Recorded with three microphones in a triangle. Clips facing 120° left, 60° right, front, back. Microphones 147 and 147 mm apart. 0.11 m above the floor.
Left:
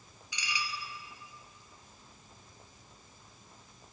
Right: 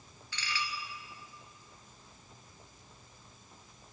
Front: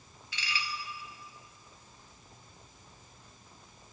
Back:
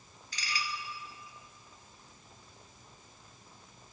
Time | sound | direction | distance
0.3 | dishes clattering | 170° right | 1.4 m